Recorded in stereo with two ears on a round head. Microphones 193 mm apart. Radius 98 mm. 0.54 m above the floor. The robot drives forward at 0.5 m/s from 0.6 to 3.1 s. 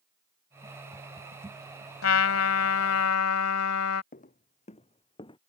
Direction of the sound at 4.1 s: 40° left (ahead or behind).